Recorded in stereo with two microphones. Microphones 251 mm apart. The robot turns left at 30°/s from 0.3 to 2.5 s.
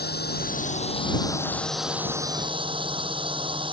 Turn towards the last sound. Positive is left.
turn(degrees=-20)